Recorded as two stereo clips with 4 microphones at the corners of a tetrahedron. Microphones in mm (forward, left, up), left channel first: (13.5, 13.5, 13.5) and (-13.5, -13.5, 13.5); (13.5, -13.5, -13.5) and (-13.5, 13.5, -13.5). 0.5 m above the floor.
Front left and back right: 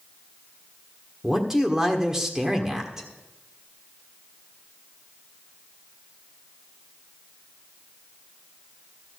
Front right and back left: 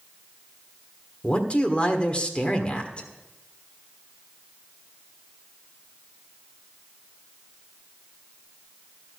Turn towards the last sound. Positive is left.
turn(degrees=-65)